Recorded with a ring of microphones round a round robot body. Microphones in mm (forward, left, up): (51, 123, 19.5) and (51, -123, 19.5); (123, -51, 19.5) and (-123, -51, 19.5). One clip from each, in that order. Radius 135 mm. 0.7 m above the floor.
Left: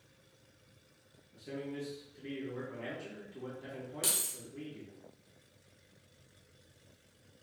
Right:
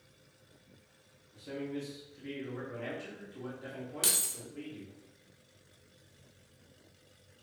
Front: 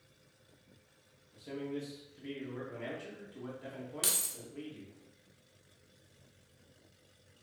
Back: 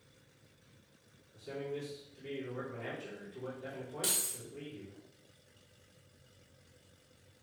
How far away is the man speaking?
About 1.9 m.